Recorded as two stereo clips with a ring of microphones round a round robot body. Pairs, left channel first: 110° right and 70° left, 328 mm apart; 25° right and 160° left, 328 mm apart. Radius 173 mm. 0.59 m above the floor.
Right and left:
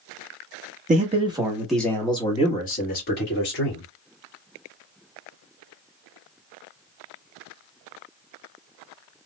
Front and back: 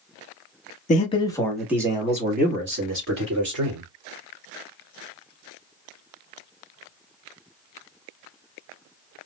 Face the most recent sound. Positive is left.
turn(degrees=-165)